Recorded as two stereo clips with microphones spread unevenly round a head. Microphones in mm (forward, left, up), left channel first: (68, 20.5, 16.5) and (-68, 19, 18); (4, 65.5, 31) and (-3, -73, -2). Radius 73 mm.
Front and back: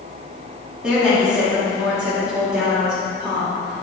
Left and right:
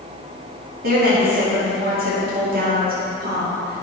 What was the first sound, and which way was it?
A woman speaking, 95° right.